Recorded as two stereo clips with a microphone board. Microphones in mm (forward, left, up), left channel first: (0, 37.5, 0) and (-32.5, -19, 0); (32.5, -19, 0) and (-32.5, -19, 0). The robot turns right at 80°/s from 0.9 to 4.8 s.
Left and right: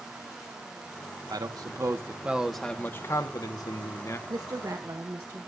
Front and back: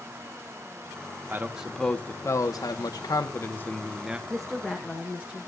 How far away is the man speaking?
About 1.3 m.